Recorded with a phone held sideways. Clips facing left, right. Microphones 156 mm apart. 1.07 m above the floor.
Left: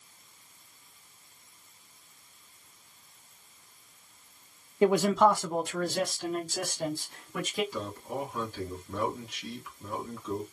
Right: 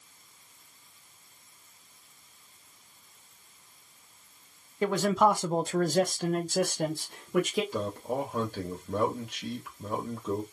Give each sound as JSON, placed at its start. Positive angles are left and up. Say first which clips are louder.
{"t": 4.8, "sound": "a man speaking", "louder": "left 2 dB", "side_deg": 20, "distance_m": 0.6}
{"t": 7.7, "sound": "a man speaking", "louder": "right 4 dB", "side_deg": -55, "distance_m": 1.7}